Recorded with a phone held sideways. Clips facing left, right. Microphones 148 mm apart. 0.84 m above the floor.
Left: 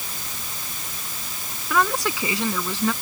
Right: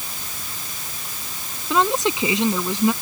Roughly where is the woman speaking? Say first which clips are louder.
Right 3 dB; right.